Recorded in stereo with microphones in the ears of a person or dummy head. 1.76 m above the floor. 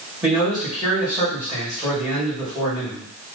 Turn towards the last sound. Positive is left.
turn(degrees=-10)  # may be behind; listen again after turning